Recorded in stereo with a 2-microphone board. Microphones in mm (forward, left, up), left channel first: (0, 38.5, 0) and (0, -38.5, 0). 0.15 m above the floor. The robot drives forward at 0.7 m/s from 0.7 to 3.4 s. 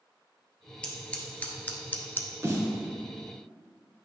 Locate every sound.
0.8 s scissors: 15° left (ahead or behind), 1.5 m; by 2.3 s 30° left (ahead or behind), 0.7 m
2.4 s a snare drum: 35° right (ahead or behind), 1.6 m; by 2.8 s 40° right (ahead or behind), 1.5 m